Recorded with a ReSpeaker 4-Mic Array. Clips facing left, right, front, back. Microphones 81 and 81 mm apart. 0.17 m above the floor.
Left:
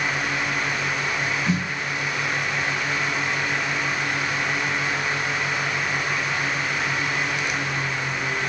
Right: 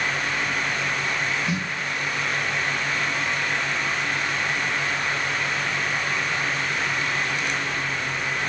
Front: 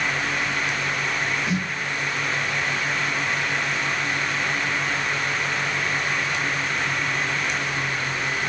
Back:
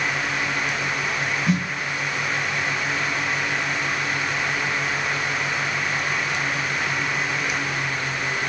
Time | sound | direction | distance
1.5 | a snare drum | 140° left | 1.1 m